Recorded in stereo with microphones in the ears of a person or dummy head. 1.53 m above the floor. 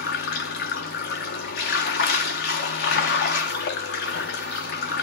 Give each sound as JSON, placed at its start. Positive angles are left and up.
{"t": 0.0, "sound": "running water", "side_deg": 45, "distance_m": 0.7}